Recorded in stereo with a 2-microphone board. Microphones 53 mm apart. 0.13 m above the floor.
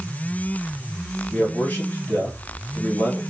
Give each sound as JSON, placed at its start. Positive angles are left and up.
{"t": 1.3, "sound": "a man speaking", "side_deg": 35, "distance_m": 2.0}